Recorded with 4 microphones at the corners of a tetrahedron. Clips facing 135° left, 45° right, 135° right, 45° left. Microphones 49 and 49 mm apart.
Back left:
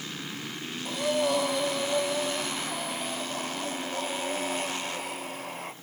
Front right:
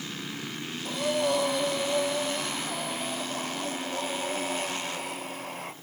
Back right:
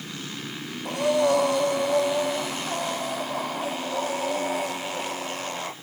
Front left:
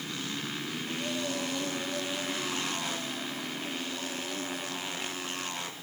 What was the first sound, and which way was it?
Breathing, 135° right.